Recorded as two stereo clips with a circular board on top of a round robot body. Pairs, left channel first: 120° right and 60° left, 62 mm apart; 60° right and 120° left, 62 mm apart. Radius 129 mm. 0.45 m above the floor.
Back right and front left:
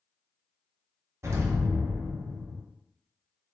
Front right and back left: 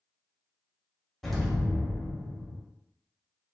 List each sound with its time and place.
1.2 s an explosion: 25° left, 0.9 m